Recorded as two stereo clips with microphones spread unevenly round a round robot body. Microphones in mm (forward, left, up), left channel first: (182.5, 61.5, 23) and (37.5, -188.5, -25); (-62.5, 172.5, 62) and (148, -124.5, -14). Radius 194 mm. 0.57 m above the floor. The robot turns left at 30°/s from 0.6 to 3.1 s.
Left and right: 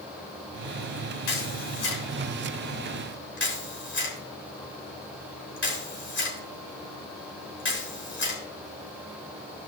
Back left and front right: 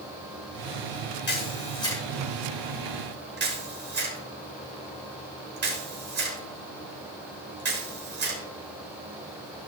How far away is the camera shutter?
About 3.5 m.